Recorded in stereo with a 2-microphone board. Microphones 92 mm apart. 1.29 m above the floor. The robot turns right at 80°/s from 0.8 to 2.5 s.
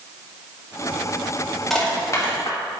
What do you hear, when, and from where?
1.7 s crushing: centre (ahead or behind), 2.5 m; by 2.6 s 65° left (ahead or behind), 2.5 m